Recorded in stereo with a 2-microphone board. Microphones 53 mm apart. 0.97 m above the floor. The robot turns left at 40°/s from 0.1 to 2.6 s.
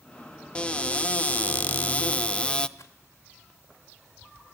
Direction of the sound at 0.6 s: 20° left (ahead or behind).